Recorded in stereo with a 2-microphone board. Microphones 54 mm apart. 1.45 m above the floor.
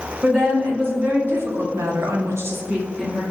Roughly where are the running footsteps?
I don't hear running footsteps.